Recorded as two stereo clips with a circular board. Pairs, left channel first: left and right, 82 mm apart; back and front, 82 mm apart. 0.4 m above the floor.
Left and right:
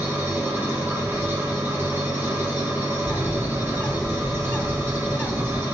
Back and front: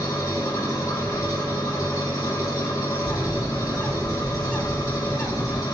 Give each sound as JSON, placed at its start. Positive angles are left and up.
{"t": 0.0, "sound": "an engine running", "azimuth_deg": -150, "distance_m": 1.9}
{"t": 3.0, "sound": "a bird", "azimuth_deg": 135, "distance_m": 1.4}